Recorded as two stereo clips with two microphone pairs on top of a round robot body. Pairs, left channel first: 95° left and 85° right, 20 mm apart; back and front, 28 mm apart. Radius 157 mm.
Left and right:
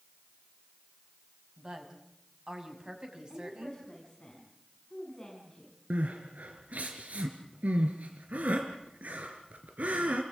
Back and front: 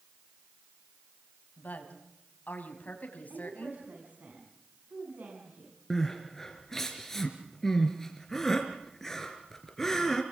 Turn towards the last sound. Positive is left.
turn(degrees=-100)